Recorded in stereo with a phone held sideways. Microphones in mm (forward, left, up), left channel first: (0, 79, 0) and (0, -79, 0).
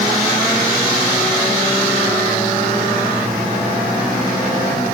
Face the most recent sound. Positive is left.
No sound to turn to.